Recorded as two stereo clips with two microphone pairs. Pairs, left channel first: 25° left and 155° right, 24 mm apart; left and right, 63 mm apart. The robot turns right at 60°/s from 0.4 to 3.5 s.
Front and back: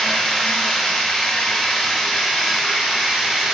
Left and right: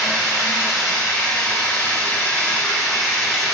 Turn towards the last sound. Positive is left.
turn(degrees=-175)